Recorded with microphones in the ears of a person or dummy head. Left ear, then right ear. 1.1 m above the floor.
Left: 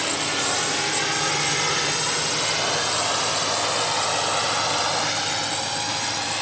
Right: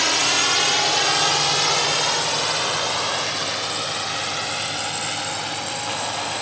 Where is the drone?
35° right (ahead or behind); by 6.4 s centre (ahead or behind).